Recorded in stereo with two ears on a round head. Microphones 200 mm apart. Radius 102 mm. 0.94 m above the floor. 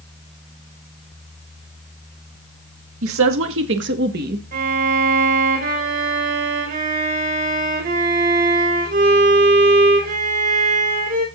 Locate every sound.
3.0 s a woman speaking: 65° right (ahead or behind), 1.8 m; by 4.4 s 40° right (ahead or behind), 1.3 m
4.5 s a violin: 40° right (ahead or behind), 5 m